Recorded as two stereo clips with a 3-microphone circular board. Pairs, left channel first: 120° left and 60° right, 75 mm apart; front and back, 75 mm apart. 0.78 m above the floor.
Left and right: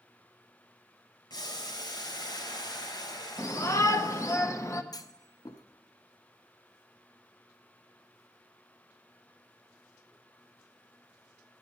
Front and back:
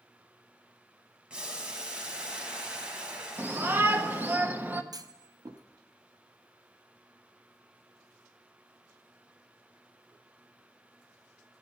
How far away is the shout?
About 0.8 m.